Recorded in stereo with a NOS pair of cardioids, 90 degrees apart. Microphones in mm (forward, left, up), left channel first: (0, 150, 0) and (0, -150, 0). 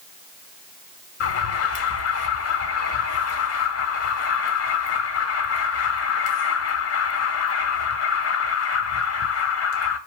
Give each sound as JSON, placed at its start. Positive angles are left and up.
{"t": 1.2, "sound": "an alarm", "azimuth_deg": 50, "distance_m": 2.5}